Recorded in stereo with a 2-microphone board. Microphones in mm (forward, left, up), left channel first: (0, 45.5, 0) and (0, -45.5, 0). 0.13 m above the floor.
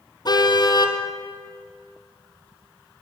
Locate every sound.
0.2 s a car horn: 50° left (ahead or behind), 2.5 m